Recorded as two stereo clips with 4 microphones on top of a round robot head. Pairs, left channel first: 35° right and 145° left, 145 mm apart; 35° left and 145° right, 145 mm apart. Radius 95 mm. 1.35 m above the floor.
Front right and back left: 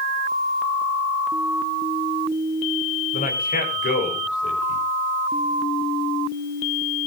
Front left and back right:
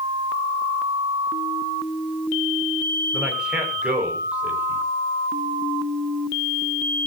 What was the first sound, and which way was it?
A man speaking, 65° right.